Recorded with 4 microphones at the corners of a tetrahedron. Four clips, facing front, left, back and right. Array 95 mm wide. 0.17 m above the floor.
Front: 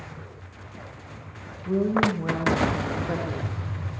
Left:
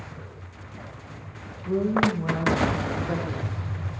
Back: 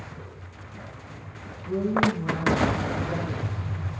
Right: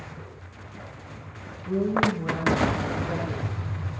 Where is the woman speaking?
35° left, 7 m.